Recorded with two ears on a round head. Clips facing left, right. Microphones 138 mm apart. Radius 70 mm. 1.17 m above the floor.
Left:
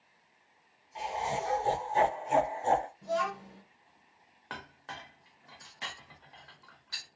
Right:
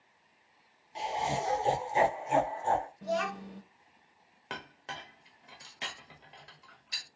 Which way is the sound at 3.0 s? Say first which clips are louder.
Even; 65° right (ahead or behind).